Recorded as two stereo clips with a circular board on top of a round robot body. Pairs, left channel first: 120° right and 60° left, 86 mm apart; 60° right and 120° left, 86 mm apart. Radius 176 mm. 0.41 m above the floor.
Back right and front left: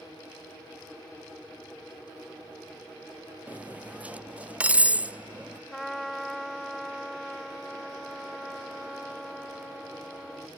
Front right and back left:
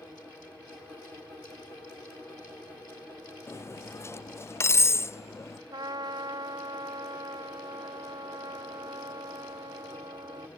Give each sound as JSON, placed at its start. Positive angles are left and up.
{"t": 3.5, "sound": "cutlery clinking", "azimuth_deg": -10}
{"t": 5.7, "sound": "a trumpet", "azimuth_deg": 150}